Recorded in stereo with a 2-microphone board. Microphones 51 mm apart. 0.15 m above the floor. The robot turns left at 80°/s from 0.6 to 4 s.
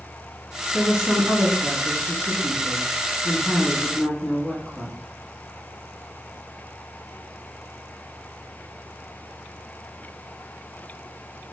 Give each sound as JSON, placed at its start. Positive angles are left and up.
{"t": 0.7, "sound": "a woman speaking", "side_deg": -15, "distance_m": 1.1}